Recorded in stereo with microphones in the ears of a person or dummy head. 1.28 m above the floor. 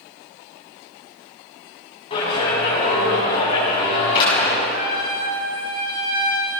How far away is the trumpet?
About 9 m.